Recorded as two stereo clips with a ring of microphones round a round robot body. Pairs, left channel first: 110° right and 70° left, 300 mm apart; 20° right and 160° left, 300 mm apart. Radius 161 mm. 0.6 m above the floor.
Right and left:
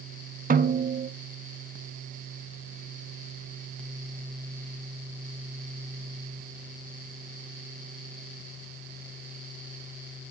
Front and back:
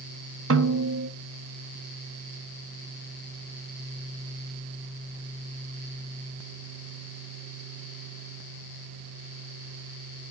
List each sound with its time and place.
0.5 s a snare drum: 125° left, 0.6 m